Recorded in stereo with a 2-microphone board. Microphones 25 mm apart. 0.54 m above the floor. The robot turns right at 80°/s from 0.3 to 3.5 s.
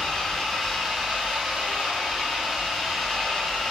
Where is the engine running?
155° left, 0.9 m; by 3.7 s 50° left, 0.9 m.